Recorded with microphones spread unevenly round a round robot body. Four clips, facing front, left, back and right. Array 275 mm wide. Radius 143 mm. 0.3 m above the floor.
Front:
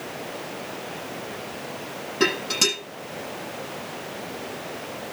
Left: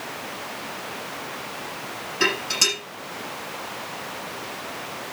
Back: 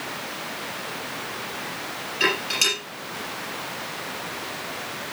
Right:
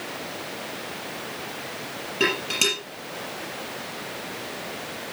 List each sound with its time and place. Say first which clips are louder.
2.2 s dishes clattering: even, front 2 dB; 30° right, 6.5 m